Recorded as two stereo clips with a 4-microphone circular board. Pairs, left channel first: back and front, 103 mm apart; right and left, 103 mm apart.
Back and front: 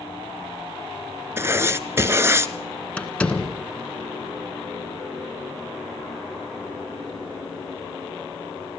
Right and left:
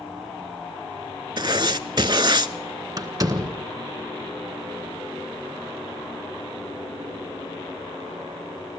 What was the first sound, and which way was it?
Writing, 60° left.